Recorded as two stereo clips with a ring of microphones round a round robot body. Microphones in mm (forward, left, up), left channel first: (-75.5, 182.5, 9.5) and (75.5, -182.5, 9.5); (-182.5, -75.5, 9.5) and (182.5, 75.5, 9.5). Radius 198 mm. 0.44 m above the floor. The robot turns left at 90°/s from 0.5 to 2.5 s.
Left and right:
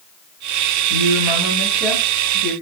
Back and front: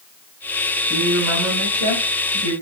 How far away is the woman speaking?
About 2.5 m.